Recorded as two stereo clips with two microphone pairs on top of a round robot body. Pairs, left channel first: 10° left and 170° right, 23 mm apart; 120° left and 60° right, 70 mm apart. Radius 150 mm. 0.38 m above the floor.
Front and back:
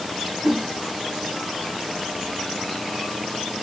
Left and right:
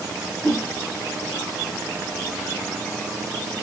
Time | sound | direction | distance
0.4 | a whoosh | 150° right | 0.8 m